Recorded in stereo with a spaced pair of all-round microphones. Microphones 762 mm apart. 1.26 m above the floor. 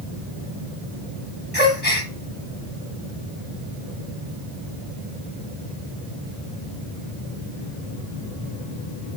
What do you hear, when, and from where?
1.5 s a gasp: 15° left (ahead or behind), 0.9 m